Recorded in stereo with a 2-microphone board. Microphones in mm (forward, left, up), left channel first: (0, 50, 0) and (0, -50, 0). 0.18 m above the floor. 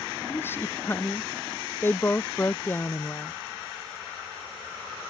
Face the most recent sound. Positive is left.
turn(degrees=20)  # may be behind; listen again after turning